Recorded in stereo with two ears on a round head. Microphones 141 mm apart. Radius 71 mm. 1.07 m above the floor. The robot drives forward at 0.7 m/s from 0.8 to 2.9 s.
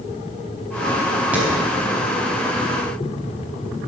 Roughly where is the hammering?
Centre.